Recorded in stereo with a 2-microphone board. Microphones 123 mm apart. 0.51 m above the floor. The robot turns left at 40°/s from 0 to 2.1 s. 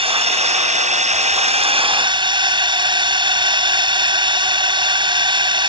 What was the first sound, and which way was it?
A drone, 55° right.